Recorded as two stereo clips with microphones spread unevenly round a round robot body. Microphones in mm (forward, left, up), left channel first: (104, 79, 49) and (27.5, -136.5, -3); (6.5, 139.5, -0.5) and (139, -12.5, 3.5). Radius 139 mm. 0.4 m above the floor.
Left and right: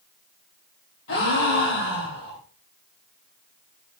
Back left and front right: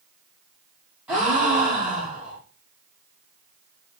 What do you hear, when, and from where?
1.1 s a gasp: 40° left, 6 m